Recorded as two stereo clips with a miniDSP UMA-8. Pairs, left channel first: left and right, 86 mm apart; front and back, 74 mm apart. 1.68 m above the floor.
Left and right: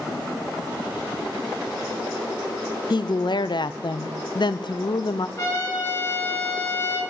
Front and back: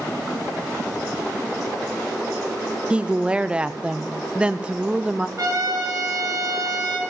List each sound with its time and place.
2.9 s a woman speaking: 105° left, 0.5 m
5.4 s a trumpet: 150° left, 6.5 m